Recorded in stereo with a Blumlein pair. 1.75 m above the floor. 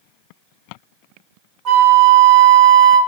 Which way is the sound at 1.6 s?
30° right.